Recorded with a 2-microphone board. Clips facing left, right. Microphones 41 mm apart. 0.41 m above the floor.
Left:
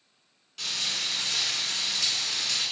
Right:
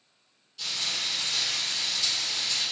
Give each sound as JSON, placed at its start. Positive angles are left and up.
{"t": 0.6, "sound": "frying", "side_deg": 80, "distance_m": 1.8}